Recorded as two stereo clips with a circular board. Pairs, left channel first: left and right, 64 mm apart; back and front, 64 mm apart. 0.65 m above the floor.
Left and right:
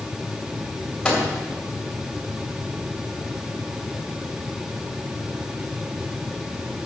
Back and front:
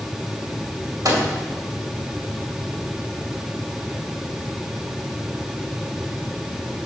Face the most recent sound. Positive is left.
turn(degrees=5)